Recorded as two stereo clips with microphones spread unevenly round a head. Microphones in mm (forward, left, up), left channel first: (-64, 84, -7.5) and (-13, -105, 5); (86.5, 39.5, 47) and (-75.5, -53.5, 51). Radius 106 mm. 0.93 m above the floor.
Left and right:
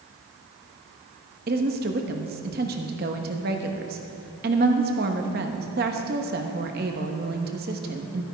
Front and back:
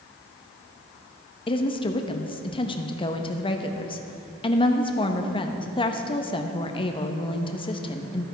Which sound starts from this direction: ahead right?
A woman speaking, at 1.5 s.